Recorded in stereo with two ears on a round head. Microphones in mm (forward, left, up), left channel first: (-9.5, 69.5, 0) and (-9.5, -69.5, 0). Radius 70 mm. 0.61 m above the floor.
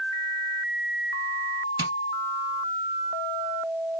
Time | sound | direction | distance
1.8 | tapping | 30° right (ahead or behind) | 2.5 m